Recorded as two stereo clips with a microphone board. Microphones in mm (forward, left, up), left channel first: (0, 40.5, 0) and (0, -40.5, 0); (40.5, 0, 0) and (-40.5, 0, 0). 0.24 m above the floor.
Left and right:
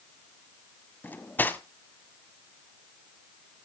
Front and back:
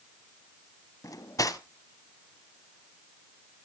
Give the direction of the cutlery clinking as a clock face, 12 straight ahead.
11 o'clock.